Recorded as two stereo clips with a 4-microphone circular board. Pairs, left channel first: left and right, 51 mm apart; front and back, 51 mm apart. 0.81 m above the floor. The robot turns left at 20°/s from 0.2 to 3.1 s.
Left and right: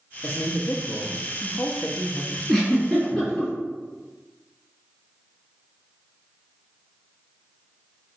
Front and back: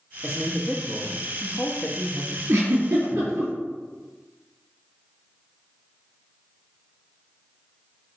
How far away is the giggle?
About 2 m.